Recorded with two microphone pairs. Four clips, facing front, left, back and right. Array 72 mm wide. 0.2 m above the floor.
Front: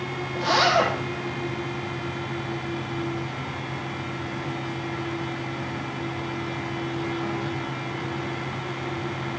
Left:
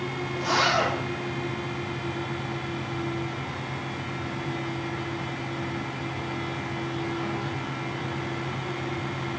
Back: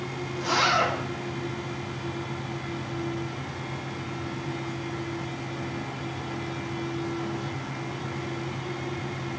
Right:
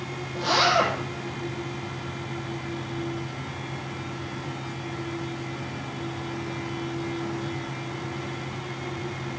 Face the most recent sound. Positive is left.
turn(degrees=-20)